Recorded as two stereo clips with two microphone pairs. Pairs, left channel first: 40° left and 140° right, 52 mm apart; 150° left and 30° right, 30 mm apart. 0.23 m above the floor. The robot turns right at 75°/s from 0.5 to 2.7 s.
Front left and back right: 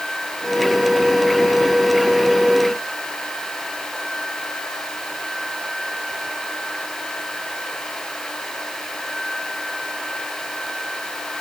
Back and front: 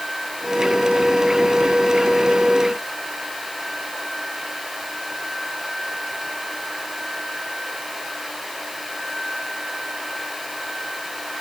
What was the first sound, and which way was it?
Only background noise.